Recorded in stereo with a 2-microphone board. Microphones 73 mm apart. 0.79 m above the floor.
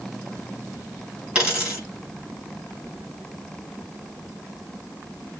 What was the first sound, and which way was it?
A dropped coin, 10° right (ahead or behind).